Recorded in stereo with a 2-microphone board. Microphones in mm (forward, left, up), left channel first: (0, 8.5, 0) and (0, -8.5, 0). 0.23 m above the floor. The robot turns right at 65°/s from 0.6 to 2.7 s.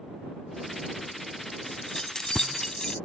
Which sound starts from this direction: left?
Keys jangling, at 1.7 s.